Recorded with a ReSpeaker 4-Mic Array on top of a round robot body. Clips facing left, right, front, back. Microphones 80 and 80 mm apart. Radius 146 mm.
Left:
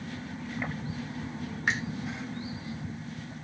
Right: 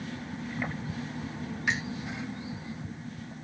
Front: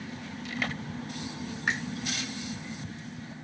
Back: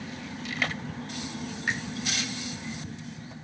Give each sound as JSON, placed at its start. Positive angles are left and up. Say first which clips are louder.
{"t": 1.7, "sound": "a finger snap", "louder": "left 1 dB, front 1 dB", "azimuth_deg": 45, "distance_m": 3.0}